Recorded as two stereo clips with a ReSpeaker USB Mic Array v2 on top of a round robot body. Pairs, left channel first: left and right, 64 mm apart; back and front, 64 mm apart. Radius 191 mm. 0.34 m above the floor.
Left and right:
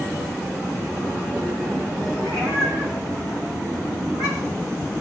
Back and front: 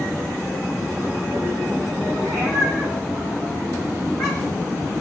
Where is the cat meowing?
60° right, 7 m; by 4.7 s 85° right, 8.5 m.